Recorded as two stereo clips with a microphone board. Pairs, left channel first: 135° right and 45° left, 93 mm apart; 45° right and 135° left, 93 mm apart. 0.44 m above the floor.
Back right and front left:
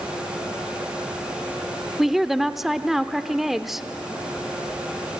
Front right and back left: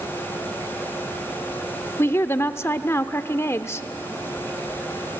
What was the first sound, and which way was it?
A woman speaking, 40° right.